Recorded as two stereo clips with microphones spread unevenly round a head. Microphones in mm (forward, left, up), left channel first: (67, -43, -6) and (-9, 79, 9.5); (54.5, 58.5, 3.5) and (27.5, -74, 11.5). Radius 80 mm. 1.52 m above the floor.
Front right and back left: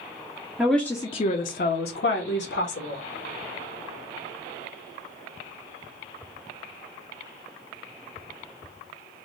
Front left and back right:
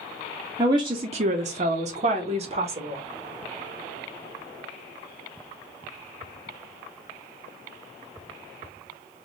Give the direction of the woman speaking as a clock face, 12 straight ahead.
6 o'clock.